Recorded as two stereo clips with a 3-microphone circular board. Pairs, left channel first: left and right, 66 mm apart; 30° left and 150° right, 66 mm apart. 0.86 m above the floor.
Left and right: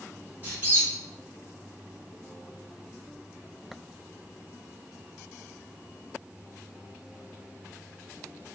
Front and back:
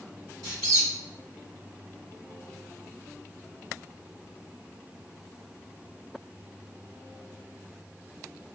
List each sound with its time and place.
0.4 s a squeak: 150° right, 1.5 m